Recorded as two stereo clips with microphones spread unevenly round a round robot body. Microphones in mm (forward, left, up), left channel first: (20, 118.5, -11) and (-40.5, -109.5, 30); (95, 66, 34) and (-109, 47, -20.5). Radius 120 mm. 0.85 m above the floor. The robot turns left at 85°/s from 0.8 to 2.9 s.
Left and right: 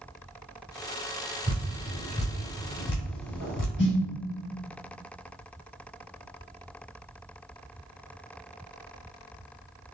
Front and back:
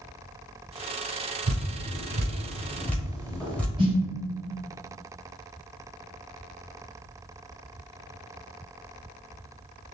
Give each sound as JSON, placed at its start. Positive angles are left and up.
{"t": 1.5, "sound": "dripping", "azimuth_deg": -155, "distance_m": 1.2}
{"t": 3.8, "sound": "a snare drum", "azimuth_deg": 120, "distance_m": 1.7}